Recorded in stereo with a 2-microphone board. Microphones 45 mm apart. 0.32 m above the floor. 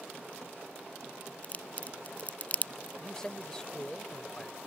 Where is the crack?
35° left (ahead or behind).